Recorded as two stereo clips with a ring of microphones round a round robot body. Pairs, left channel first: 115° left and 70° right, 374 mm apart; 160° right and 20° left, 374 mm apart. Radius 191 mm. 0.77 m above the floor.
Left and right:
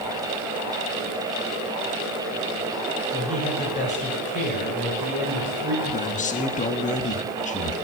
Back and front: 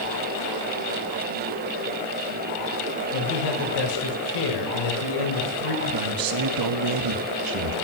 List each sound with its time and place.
3.1 s a man speaking: 175° right, 4 m
5.8 s a man speaking: 45° left, 1.3 m